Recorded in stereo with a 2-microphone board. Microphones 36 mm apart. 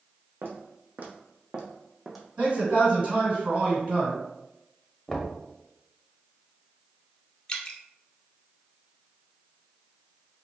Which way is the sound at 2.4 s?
30° right (ahead or behind).